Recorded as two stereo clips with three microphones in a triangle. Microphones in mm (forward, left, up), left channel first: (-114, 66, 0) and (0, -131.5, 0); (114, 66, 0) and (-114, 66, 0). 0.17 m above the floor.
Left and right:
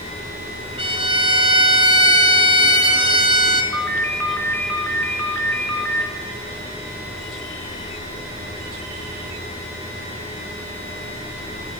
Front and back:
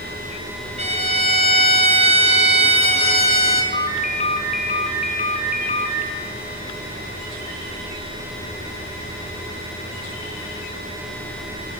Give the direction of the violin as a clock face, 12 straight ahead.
4 o'clock.